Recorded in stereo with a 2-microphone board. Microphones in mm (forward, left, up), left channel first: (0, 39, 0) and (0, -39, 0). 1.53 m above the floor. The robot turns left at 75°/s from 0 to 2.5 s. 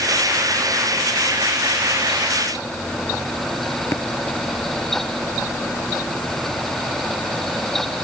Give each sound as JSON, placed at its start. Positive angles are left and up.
{"t": 3.9, "sound": "tapping", "side_deg": 40}